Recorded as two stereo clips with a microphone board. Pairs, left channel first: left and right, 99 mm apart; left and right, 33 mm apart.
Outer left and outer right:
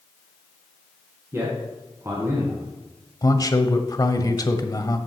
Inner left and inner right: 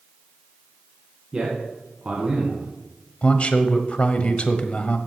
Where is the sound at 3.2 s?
40° left (ahead or behind), 1.1 m.